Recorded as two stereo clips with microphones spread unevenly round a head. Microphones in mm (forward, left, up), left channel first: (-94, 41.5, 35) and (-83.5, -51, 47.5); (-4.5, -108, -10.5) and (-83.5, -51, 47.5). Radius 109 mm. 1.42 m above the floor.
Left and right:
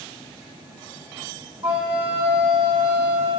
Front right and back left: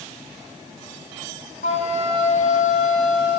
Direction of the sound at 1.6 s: 15° right.